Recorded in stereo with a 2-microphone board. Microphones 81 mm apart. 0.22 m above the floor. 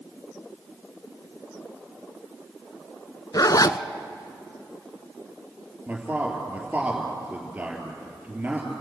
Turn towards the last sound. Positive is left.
turn(degrees=-20)  # may be behind; listen again after turning